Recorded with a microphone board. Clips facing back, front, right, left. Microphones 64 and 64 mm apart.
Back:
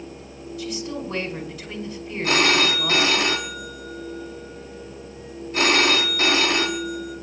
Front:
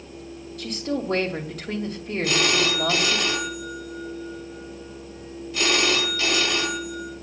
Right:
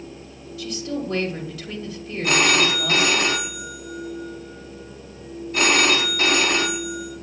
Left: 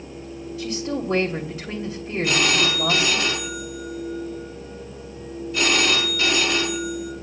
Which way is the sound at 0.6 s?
30° left.